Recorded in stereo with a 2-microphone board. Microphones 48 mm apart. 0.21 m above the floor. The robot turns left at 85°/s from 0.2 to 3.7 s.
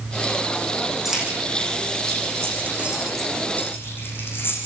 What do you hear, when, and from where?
1.1 s keys jangling: 5° right (ahead or behind), 10 m; by 4.6 s 50° left (ahead or behind), 10 m